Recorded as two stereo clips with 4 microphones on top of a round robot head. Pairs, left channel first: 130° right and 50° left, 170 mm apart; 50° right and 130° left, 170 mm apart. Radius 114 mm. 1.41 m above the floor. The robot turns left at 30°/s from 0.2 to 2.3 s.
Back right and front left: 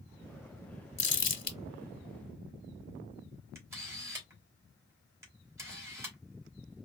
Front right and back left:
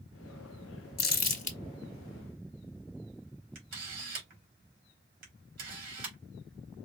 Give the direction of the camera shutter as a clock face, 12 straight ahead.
8 o'clock.